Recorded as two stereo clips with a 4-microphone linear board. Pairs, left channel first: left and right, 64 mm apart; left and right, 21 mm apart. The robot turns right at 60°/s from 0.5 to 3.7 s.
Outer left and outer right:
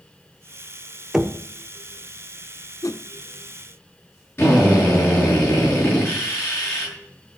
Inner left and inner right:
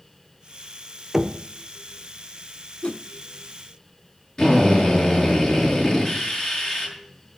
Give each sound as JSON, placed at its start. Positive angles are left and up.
{"t": 1.1, "sound": "knocking", "side_deg": -5, "distance_m": 0.8}
{"t": 2.8, "sound": "a whoosh", "side_deg": 60, "distance_m": 0.5}
{"t": 4.4, "sound": "a drill", "side_deg": 35, "distance_m": 8.0}